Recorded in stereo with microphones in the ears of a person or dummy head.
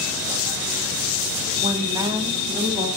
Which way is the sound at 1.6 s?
30° right (ahead or behind).